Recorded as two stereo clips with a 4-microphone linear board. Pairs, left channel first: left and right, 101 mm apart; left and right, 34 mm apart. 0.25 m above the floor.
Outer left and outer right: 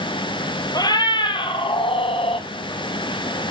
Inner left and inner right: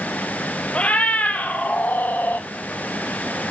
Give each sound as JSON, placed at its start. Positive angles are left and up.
{"t": 0.8, "sound": "a cat meowing", "side_deg": 45, "distance_m": 1.4}